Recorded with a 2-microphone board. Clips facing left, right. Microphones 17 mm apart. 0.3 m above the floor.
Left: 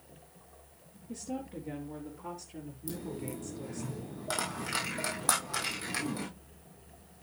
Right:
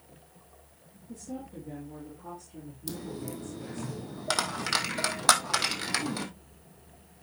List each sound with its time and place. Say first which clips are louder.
1.1 s a woman speaking: left 2 dB; 70° left (ahead or behind), 4 m; by 3.9 s 45° left (ahead or behind), 4.5 m
2.9 s a dropped coin: right 1 dB; 55° right (ahead or behind), 2 m